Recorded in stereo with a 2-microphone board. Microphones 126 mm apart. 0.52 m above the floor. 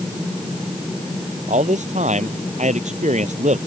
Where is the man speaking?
70° right (ahead or behind).